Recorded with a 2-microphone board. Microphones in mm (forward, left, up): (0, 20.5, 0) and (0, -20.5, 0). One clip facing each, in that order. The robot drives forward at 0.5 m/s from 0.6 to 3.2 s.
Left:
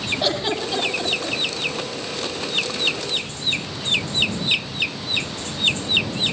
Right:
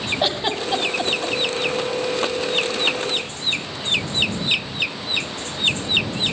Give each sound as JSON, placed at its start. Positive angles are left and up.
{"t": 0.2, "sound": "a giggle", "side_deg": -25, "distance_m": 7.5}